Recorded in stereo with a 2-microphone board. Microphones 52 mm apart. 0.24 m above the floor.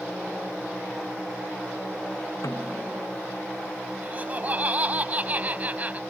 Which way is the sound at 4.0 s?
30° right (ahead or behind).